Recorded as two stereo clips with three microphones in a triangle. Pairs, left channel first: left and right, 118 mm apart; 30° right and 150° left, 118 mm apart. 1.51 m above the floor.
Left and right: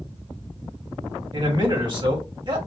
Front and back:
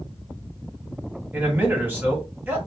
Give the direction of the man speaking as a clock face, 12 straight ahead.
5 o'clock.